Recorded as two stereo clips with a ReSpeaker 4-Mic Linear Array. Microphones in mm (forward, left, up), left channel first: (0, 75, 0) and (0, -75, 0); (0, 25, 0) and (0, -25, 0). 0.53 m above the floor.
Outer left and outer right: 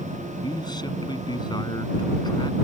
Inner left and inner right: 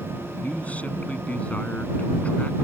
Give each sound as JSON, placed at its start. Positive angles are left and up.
{"t": 0.4, "sound": "a man speaking", "side_deg": 30}